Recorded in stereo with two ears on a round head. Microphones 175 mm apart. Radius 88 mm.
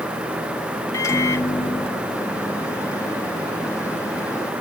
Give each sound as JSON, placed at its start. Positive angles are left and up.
{"t": 0.9, "sound": "a microwave", "side_deg": 15}